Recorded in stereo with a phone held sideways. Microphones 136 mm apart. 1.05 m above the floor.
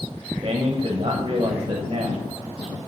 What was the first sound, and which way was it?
A man speaking, 40° right (ahead or behind).